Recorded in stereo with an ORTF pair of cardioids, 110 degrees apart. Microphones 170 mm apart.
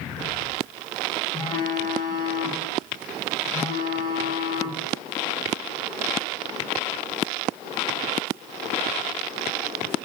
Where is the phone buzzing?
25° left, 1.3 m.